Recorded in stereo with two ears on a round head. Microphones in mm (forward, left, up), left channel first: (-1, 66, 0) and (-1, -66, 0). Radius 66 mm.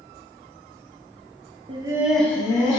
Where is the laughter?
35° right (ahead or behind), 0.6 m; by 2.8 s 30° left (ahead or behind), 1.0 m.